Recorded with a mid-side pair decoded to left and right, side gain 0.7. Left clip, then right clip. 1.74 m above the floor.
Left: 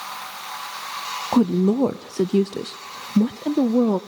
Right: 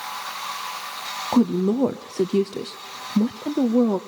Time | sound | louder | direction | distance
1.3 | a woman speaking | left 1 dB | 10° left | 0.6 m